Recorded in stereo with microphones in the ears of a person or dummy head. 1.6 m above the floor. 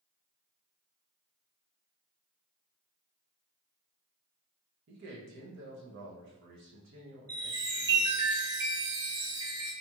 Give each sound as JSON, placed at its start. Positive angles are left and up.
{"t": 4.9, "sound": "a man speaking", "side_deg": -60, "distance_m": 0.6}
{"t": 7.3, "sound": "a chime", "side_deg": -15, "distance_m": 0.5}